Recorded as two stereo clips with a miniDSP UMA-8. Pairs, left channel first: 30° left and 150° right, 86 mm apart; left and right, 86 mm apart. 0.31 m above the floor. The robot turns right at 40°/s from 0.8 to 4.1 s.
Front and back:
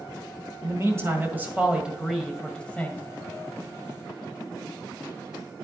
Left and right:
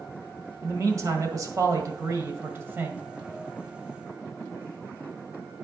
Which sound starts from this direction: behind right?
A man speaking, at 0.6 s.